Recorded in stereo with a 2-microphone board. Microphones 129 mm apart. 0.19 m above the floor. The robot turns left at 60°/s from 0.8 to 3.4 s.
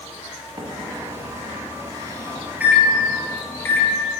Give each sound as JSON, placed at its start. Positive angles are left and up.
{"t": 0.6, "sound": "a microwave", "side_deg": -30, "distance_m": 1.0}